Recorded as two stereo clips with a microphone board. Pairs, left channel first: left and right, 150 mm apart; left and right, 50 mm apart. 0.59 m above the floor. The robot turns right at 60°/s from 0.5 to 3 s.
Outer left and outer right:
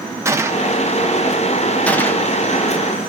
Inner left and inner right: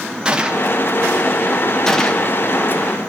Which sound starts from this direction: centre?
A gunshot, at 0.2 s.